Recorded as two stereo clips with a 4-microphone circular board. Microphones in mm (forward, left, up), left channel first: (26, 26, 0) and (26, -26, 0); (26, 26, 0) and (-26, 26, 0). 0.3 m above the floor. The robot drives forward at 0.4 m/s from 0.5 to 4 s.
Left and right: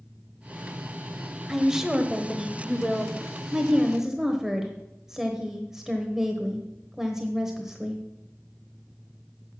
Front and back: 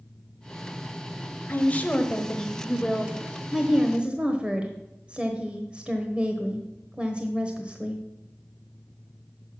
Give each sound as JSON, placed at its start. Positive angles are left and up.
{"t": 1.5, "sound": "a woman speaking", "azimuth_deg": -15, "distance_m": 1.1}